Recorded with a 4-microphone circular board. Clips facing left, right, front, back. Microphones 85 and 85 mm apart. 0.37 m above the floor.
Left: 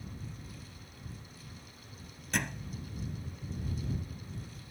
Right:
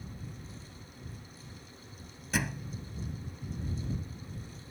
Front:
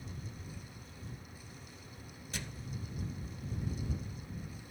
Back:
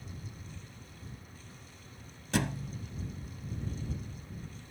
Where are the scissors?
No scissors in this recording.